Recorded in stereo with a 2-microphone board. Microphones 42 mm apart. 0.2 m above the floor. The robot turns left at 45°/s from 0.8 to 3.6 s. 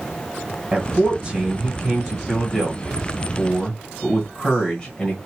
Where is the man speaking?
20° right (ahead or behind), 1.6 m; by 5.2 s 15° left (ahead or behind), 1.6 m.